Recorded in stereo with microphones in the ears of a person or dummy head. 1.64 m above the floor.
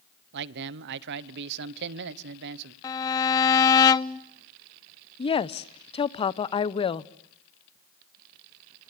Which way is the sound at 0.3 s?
60° right (ahead or behind).